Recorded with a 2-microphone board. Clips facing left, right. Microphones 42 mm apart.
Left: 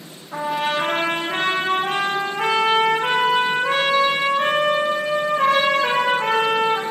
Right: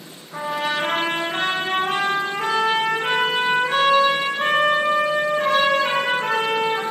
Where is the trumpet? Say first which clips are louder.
Left 2 dB; 55° left (ahead or behind), 3 m.